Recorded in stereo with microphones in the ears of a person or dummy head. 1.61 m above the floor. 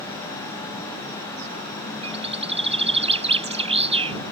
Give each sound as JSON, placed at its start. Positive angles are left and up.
{"t": 2.0, "sound": "a bird", "side_deg": -40}